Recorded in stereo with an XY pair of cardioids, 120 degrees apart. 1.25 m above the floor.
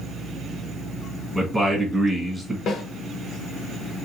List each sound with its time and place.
1.3 s a man speaking: 5° right, 1.4 m
2.7 s a snare drum: 65° left, 1.0 m